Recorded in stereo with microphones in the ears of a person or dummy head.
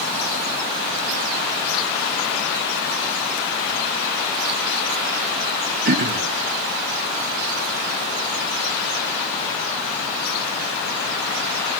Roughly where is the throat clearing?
Right.